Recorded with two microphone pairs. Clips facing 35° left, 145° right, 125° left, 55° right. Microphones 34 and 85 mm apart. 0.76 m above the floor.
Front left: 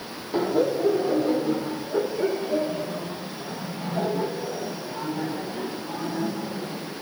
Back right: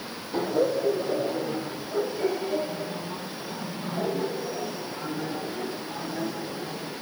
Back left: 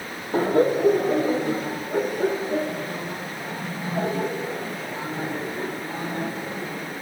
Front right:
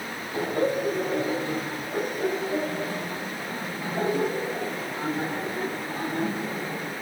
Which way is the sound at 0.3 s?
100° left.